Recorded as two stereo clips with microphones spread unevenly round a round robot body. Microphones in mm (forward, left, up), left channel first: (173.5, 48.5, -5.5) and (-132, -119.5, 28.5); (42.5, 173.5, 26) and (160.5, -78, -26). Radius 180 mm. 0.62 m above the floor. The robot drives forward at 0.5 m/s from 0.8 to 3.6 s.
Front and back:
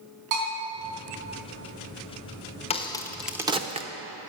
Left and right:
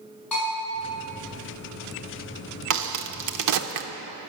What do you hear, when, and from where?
0.3 s a bell: 160° right, 4 m
2.7 s a crack: 45° right, 0.8 m; by 3.9 s 75° right, 0.6 m